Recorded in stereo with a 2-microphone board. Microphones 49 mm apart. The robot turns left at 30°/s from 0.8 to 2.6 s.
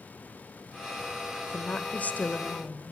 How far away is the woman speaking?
About 0.9 m.